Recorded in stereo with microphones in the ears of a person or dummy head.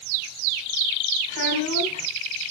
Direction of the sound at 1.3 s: 65° left (ahead or behind).